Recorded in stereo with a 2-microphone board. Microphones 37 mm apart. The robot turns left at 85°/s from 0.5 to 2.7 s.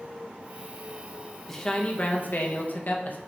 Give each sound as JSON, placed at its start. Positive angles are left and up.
{"t": 1.5, "sound": "a man speaking", "azimuth_deg": 175, "distance_m": 0.7}